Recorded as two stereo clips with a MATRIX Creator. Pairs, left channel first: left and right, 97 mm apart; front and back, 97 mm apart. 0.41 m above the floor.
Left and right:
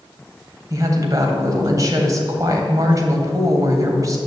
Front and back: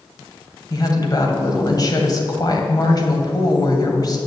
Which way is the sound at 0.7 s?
40° right.